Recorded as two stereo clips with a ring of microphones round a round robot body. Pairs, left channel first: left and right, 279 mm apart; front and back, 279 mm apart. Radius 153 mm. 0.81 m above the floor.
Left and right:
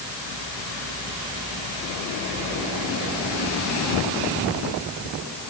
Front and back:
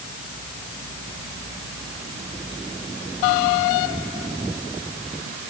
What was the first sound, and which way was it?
Only background noise.